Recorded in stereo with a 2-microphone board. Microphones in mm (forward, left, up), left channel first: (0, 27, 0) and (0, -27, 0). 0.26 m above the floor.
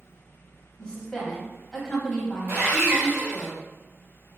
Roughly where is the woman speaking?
Centre.